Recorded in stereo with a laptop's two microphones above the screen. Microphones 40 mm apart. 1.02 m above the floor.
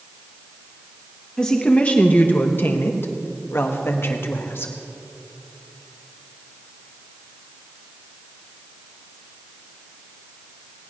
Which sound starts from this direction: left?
A woman speaking, at 1.4 s.